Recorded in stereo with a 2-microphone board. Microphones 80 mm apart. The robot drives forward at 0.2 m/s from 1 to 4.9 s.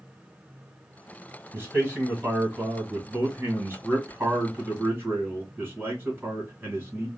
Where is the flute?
No flute in this recording.